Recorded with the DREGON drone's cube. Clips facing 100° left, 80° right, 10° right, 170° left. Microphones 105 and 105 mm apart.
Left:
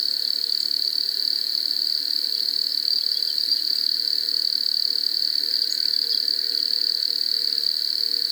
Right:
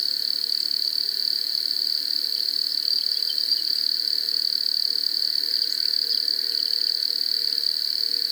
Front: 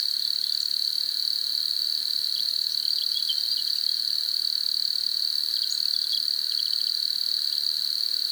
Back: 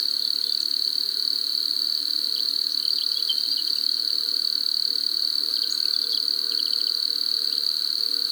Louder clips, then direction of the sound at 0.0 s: Left 1 dB, back 3 dB; 170° right.